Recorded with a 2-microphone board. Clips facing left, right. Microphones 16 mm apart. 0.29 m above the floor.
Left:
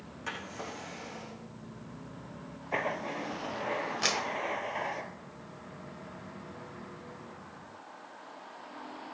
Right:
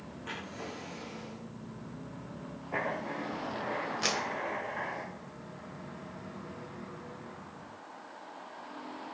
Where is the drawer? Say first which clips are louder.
Left 2 dB; 50° left (ahead or behind), 6.5 m.